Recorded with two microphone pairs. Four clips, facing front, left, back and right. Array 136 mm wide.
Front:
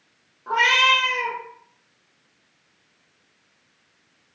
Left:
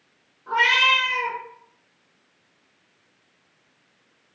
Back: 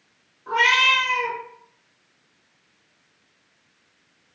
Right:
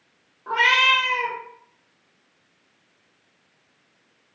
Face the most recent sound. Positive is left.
turn(degrees=-70)